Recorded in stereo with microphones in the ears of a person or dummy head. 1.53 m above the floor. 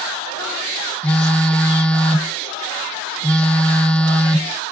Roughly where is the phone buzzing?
Centre.